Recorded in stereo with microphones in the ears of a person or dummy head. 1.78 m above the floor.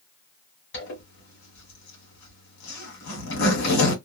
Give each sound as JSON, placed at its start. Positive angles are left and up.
{"t": 0.7, "sound": "a zipper", "side_deg": 65, "distance_m": 1.5}